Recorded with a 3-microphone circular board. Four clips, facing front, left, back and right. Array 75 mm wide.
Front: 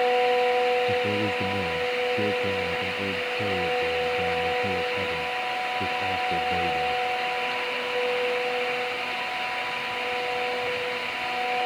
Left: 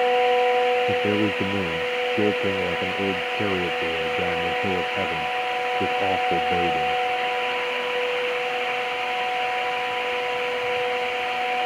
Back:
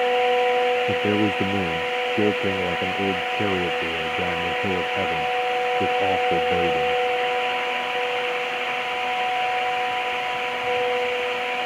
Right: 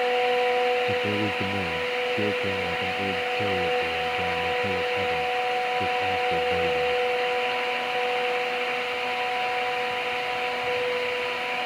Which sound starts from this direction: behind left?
A man speaking, at 0.9 s.